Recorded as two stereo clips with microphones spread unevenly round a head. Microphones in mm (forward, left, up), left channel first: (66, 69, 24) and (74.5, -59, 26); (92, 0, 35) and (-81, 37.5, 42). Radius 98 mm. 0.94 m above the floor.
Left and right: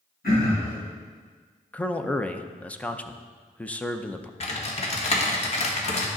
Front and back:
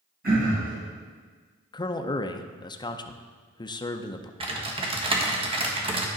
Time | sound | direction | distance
0.2 | throat clearing | 130° left | 3.5 m
1.7 | a man speaking | 25° left | 0.6 m
4.4 | typing on a keyboard | 115° left | 1.3 m